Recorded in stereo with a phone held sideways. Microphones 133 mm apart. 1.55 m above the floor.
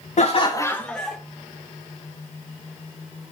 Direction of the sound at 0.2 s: 60° left (ahead or behind).